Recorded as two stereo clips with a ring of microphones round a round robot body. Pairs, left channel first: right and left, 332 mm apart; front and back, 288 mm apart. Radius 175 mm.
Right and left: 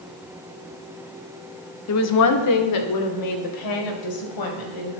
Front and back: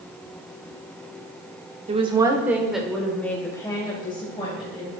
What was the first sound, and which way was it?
A woman speaking, 115° right.